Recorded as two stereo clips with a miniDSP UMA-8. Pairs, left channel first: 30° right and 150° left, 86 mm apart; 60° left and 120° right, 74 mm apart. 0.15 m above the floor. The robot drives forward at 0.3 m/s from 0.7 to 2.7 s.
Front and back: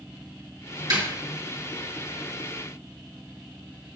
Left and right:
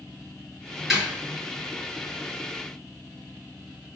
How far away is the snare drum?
About 2.5 m.